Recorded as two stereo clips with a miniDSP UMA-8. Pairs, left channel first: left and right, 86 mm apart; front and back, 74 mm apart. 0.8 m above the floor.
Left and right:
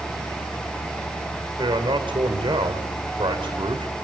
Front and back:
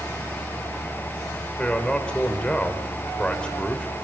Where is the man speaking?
75° right, 3 m.